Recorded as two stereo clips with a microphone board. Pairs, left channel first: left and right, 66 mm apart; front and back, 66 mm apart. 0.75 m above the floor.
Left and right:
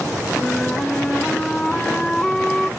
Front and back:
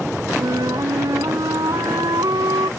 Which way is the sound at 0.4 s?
170° left.